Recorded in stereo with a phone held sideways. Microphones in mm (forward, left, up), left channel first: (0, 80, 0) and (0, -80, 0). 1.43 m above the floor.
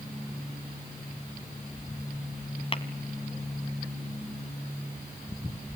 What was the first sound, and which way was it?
Tapping, 35° left (ahead or behind).